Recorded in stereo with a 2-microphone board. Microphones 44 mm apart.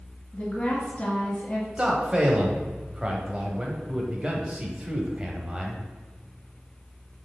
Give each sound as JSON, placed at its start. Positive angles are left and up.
{"t": 0.3, "sound": "a woman speaking", "side_deg": 25, "distance_m": 1.8}
{"t": 1.8, "sound": "a man speaking", "side_deg": -25, "distance_m": 1.2}